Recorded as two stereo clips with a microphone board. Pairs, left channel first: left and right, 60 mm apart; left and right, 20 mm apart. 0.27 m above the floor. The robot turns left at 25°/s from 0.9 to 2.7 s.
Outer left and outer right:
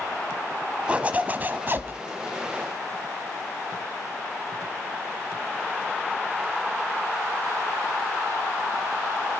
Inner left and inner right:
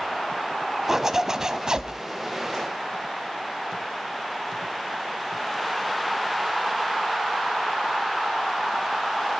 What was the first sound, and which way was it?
A zipper, 20° right (ahead or behind).